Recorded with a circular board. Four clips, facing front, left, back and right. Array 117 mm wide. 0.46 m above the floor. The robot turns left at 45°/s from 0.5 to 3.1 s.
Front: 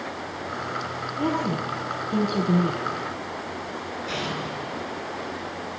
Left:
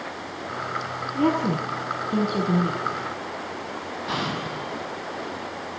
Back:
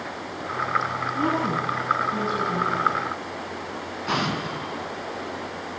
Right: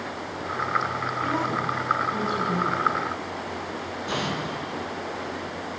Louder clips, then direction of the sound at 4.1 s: Even, back 6 dB; 165° left.